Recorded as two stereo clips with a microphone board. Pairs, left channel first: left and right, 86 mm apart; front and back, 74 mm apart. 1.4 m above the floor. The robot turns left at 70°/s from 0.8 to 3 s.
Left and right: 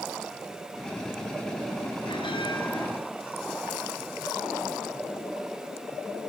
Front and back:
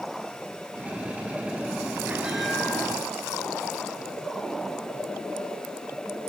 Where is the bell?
115° left, 7 m; by 2.9 s 60° left, 7 m.